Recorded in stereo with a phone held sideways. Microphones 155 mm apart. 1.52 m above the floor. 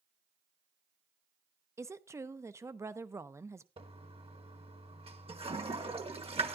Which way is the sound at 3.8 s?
40° right (ahead or behind).